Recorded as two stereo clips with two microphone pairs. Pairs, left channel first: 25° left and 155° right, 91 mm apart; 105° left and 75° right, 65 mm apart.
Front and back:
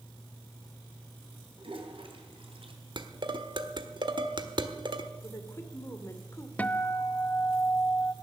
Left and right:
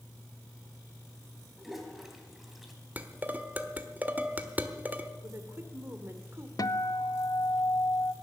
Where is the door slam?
No door slam in this recording.